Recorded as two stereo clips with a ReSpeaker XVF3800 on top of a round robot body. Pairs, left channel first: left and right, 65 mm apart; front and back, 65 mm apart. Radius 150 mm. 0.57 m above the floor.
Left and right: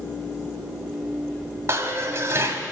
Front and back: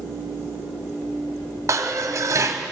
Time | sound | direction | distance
1.7 | dishes clattering | 140° right | 1.4 m